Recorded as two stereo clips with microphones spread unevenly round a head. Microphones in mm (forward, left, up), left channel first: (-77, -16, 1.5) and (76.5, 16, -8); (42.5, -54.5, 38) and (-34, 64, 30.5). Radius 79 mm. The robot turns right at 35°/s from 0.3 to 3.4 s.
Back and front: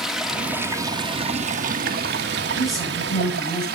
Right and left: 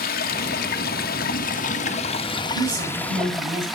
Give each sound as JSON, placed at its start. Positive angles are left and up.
{"t": 0.0, "sound": "running water", "azimuth_deg": -75, "distance_m": 1.3}
{"t": 2.5, "sound": "a woman speaking", "azimuth_deg": 95, "distance_m": 8.5}